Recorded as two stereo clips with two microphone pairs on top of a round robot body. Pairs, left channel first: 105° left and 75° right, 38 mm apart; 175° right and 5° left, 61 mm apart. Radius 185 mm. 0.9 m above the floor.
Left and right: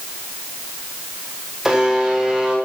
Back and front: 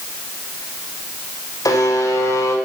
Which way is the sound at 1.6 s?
155° right.